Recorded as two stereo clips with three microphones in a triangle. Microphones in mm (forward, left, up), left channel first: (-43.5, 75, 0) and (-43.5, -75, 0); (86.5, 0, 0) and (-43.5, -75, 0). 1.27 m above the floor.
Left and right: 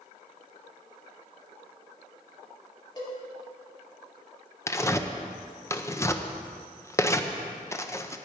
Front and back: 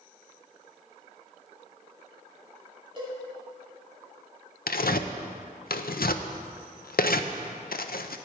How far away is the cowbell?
About 3 m.